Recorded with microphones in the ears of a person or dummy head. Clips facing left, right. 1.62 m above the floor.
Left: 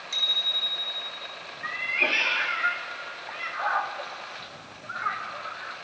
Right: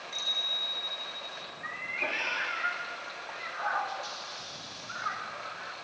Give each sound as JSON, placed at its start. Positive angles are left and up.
{"t": 0.1, "sound": "a bicycle bell", "side_deg": 60, "distance_m": 6.0}
{"t": 1.6, "sound": "a cat meowing", "side_deg": 50, "distance_m": 1.7}